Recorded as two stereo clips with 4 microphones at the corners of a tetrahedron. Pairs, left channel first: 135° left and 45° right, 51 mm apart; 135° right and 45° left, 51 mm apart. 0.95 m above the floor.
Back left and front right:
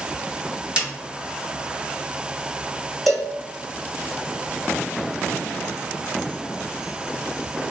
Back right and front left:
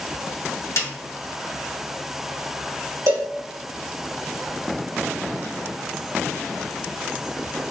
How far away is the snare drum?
About 1.4 m.